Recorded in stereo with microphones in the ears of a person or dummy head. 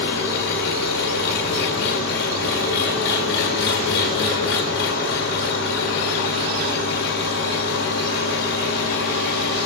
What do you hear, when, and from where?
0.0 s an engine running: 55° left (ahead or behind), 1.3 m